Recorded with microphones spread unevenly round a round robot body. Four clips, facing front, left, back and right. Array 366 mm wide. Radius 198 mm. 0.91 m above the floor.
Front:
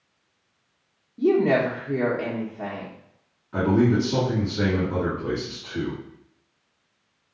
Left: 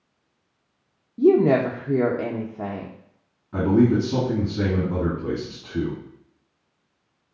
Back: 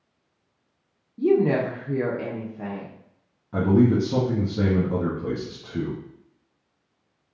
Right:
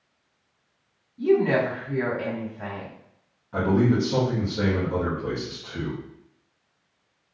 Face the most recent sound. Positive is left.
turn(degrees=155)